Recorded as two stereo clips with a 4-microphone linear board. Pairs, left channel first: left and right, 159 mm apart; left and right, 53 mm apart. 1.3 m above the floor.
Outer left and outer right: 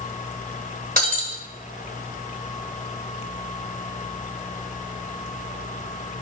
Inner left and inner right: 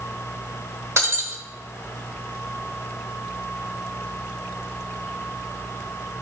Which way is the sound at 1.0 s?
60° right (ahead or behind).